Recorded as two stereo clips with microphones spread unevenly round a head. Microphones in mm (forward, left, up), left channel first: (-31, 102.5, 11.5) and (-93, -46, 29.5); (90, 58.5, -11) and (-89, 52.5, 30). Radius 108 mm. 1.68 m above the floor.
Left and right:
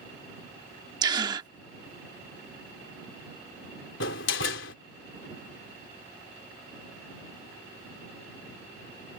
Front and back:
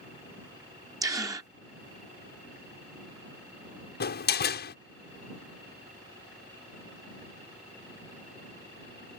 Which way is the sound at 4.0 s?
35° left.